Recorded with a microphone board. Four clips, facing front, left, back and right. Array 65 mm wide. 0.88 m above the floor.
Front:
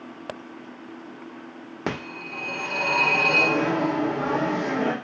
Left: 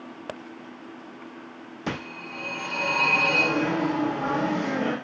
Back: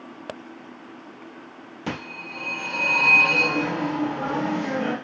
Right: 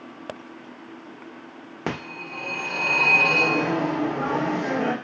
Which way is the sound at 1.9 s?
45° right.